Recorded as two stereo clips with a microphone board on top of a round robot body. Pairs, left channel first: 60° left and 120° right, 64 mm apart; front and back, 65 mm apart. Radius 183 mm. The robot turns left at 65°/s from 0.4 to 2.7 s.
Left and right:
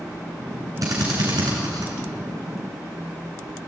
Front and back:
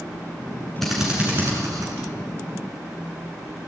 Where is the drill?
85° right, 7.5 m; by 1.9 s 155° right, 7.5 m.